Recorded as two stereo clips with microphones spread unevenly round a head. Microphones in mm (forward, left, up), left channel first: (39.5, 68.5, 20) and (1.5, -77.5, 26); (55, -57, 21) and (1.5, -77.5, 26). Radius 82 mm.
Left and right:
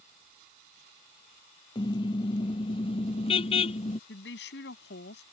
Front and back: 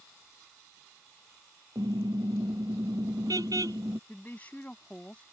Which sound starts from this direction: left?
A woman speaking, at 4.1 s.